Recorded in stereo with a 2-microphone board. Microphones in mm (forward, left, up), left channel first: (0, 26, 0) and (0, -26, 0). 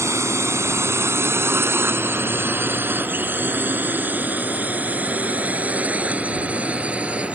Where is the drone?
60° right (ahead or behind); by 7.4 s 20° right (ahead or behind).